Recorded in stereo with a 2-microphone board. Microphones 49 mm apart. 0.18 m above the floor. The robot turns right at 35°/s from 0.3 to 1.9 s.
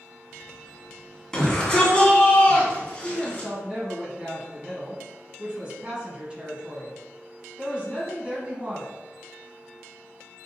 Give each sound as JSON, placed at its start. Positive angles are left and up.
{"t": 1.3, "sound": "a shout", "side_deg": 15, "distance_m": 1.2}
{"t": 3.0, "sound": "a woman speaking", "side_deg": -20, "distance_m": 1.1}